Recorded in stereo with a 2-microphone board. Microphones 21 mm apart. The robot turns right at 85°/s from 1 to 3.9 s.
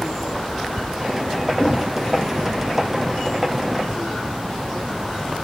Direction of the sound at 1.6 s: 75° left (ahead or behind).